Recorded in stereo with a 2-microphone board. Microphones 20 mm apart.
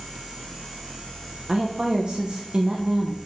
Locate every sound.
1.5 s a woman speaking: 45° right (ahead or behind), 1.0 m